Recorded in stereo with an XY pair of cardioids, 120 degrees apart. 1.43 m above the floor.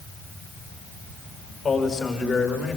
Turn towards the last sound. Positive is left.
turn(degrees=45)